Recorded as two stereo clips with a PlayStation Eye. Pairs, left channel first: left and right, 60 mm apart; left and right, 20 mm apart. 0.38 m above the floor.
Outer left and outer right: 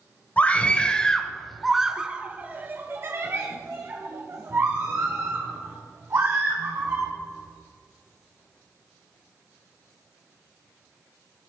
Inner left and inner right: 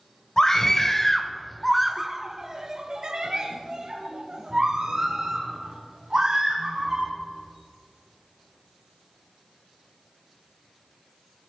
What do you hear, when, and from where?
0.4 s a scream: 25° left (ahead or behind), 1.3 m; by 7.1 s 50° right (ahead or behind), 3 m